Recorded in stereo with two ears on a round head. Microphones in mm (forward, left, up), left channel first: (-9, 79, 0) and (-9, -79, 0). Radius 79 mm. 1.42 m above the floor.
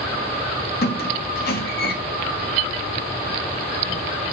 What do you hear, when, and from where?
0.8 s a squeak: 60° left (ahead or behind), 1.9 m